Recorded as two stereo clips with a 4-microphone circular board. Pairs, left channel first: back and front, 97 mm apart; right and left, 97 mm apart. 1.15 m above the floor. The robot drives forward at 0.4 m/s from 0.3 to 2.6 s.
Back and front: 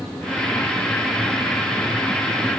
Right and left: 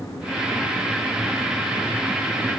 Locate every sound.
Only background noise.